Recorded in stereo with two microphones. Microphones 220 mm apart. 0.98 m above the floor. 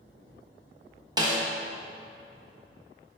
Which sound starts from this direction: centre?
A snare drum, at 1.2 s.